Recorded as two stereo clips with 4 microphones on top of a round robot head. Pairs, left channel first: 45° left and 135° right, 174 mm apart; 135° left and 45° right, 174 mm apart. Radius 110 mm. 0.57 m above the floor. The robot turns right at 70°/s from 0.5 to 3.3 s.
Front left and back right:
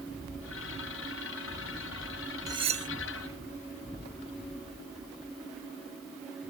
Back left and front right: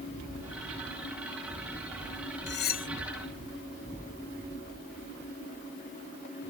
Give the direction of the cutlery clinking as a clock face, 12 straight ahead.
7 o'clock.